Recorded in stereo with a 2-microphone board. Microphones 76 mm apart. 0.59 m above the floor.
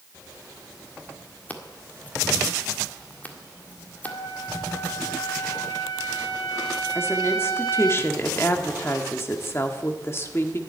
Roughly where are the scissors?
Left.